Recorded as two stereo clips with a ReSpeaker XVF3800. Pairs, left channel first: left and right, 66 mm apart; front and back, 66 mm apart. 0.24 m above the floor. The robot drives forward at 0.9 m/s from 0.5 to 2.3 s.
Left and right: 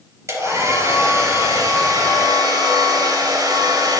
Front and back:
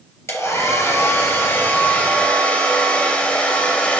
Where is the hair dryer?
45° right, 4 m; by 4.0 s 70° right, 3 m.